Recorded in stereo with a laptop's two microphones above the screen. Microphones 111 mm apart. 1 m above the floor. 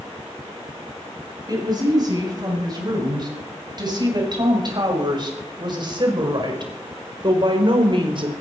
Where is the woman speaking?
40° right (ahead or behind), 7.5 m; by 8.3 s 50° right (ahead or behind), 4 m.